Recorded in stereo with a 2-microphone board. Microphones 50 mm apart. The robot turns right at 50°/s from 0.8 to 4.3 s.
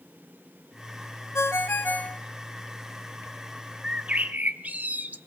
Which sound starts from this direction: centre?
A bird, at 3.8 s.